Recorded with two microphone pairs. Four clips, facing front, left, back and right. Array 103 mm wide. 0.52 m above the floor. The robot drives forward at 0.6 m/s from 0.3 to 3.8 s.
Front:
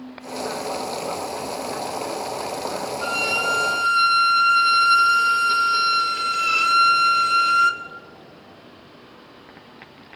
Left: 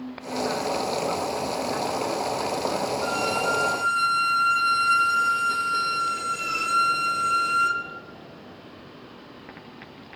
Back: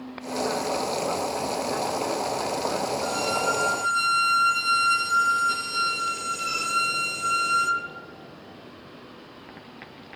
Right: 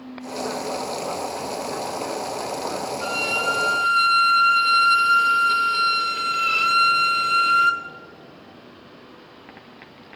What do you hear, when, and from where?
3.0 s a violin: 20° right, 1.8 m; by 7.8 s 30° right, 1.4 m